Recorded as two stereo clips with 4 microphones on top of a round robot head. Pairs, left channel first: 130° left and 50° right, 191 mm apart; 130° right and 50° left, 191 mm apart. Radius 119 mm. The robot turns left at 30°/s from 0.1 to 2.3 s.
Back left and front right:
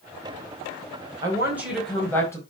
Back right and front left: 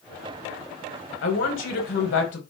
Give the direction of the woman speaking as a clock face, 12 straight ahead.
4 o'clock.